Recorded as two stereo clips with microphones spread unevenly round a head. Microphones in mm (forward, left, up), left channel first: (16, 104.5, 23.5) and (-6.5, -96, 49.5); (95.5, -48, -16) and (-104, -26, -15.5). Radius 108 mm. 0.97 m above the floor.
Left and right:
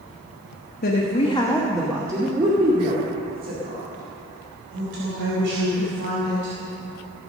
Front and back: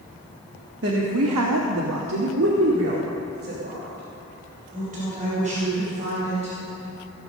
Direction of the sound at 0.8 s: 130° left.